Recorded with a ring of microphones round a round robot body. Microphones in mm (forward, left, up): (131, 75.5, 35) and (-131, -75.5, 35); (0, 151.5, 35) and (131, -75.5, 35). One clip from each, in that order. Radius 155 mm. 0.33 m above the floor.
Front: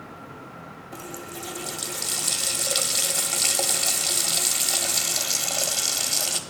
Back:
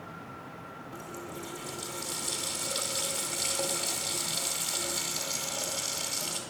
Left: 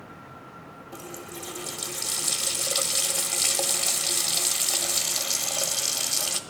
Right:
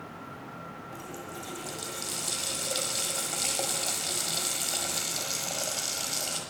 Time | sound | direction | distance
0.9 | a running tap | 80° left | 1.2 m